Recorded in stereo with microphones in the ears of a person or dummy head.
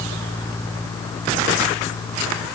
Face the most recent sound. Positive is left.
No sound to turn to.